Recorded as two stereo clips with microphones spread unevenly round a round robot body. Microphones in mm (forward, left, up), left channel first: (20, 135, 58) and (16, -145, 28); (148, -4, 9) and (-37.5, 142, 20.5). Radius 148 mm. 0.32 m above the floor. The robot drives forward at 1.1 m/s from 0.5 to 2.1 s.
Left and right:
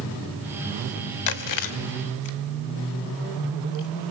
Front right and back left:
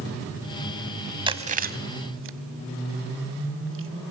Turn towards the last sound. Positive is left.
turn(degrees=110)